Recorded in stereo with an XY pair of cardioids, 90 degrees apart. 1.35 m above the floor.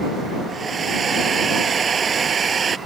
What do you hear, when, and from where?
0.5 s a hair dryer: 50° right